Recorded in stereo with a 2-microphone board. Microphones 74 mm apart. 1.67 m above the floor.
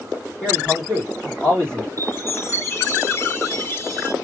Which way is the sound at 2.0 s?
35° left (ahead or behind).